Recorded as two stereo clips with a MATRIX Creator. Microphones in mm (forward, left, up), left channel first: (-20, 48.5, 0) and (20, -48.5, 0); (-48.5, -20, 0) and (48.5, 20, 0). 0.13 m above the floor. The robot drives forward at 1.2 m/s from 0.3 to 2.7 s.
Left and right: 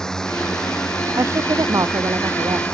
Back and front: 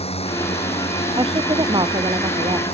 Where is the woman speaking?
10° right.